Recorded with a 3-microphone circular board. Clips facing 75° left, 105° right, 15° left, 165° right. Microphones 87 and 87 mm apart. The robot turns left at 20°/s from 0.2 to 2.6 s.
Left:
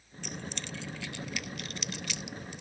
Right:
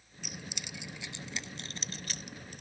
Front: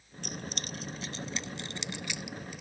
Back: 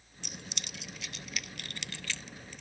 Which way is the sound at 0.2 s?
20° right.